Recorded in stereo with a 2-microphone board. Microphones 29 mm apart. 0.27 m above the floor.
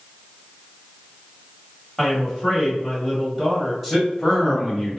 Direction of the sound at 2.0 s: 10° right (ahead or behind).